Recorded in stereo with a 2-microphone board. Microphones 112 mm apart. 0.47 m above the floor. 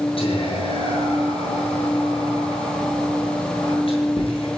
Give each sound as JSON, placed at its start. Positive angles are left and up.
{"t": 0.2, "sound": "whispering", "side_deg": 55, "distance_m": 9.0}